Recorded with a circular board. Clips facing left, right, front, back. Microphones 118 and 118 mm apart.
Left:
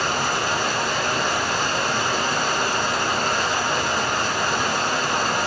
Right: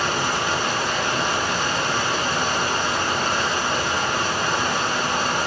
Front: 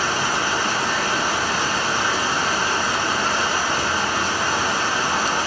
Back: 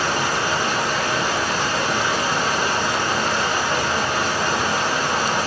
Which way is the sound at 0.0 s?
140° left.